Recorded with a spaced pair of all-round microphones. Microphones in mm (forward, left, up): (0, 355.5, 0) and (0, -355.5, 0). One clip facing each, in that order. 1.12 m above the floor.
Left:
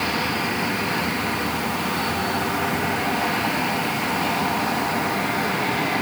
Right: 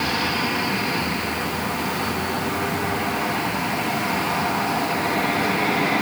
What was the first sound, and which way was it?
Only background noise.